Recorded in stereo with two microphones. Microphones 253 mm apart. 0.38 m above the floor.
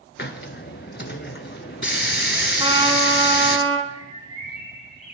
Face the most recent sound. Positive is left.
turn(degrees=25)  # may be behind; listen again after turning